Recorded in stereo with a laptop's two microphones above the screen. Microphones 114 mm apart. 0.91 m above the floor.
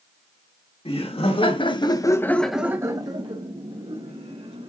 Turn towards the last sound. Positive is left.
turn(degrees=-65)  # may be behind; listen again after turning